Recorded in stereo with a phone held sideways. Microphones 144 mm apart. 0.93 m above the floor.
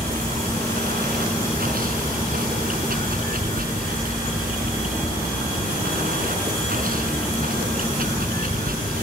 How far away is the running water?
About 5 m.